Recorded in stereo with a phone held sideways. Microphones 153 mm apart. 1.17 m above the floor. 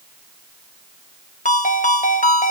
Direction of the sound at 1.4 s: 55° left (ahead or behind).